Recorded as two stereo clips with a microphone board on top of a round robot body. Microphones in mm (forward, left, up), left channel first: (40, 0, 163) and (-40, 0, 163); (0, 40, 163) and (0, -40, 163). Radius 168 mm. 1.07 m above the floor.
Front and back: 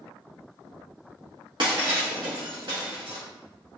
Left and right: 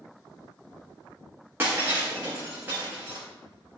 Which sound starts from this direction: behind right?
Breaking glass, at 1.6 s.